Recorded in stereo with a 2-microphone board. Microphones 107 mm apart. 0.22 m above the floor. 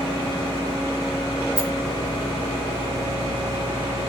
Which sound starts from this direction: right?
A rattle, at 1.6 s.